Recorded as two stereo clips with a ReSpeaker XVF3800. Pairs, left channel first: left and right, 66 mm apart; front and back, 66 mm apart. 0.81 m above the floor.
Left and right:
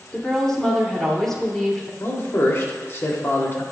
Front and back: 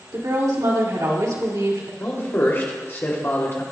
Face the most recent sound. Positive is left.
turn(degrees=45)